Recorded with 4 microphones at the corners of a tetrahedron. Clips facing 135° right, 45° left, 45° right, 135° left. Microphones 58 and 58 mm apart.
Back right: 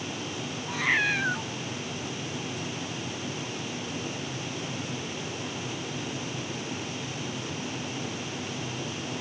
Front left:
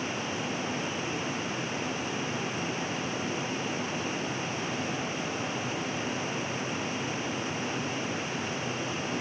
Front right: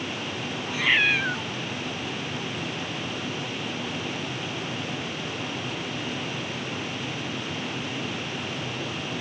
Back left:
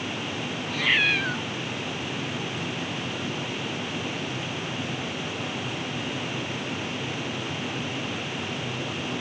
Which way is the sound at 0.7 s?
125° right.